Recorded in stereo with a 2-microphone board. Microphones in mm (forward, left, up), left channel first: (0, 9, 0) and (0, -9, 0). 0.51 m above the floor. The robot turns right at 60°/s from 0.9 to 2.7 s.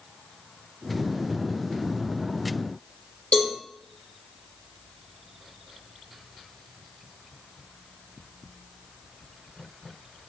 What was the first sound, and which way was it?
A cowbell, 85° left.